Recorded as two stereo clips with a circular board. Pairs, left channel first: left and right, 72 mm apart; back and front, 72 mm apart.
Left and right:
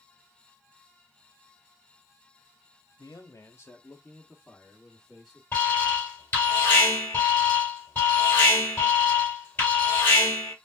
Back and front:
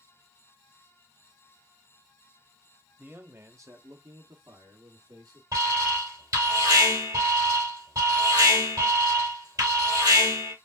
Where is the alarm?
30° left, 3 m.